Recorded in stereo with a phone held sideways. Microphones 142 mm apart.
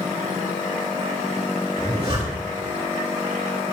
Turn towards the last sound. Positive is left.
turn(degrees=-45)  # may be behind; listen again after turning